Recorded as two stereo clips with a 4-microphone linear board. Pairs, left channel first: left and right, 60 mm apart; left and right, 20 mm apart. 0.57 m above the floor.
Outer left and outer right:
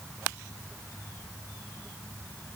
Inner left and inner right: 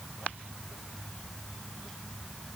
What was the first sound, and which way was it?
Only background noise.